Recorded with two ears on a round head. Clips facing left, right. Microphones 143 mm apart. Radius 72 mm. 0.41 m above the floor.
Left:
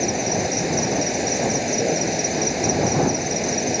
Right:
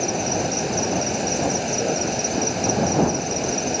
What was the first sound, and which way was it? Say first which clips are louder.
An insect: left 1 dB; 10° left (ahead or behind).